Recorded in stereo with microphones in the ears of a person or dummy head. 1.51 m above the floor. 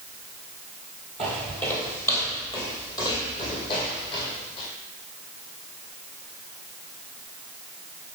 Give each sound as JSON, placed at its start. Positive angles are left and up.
{"t": 1.2, "sound": "footsteps", "side_deg": 5, "distance_m": 1.6}